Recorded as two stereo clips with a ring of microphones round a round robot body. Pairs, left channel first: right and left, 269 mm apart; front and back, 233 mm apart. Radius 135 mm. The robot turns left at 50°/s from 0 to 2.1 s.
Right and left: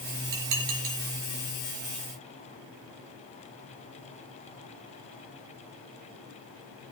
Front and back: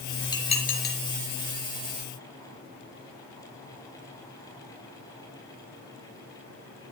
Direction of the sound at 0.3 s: 75° left.